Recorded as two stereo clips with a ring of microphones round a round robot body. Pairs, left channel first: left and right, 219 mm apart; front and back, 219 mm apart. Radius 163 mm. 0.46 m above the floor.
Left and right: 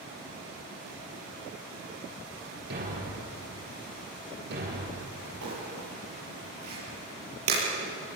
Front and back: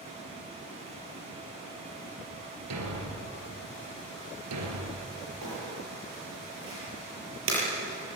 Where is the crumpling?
130° right, 7 m.